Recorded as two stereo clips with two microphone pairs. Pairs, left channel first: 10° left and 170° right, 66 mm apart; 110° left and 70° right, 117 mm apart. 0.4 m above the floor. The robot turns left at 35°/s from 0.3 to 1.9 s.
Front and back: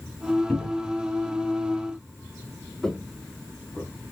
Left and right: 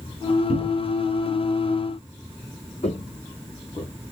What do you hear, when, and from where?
0.5 s a cupboard door: 85° left, 1.4 m; by 1.0 s 70° left, 1.4 m
2.8 s footsteps: 95° left, 0.8 m; by 4.1 s 70° left, 1.3 m